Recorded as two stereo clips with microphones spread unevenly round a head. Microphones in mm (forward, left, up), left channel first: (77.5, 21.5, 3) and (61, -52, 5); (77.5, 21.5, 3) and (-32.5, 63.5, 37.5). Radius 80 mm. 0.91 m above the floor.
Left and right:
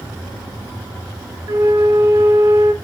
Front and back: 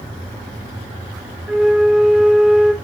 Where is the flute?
90° right, 0.8 m.